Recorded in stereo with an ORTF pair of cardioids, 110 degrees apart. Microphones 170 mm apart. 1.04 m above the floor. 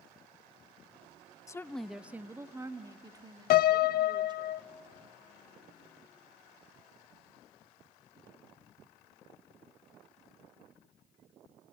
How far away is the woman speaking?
About 0.7 m.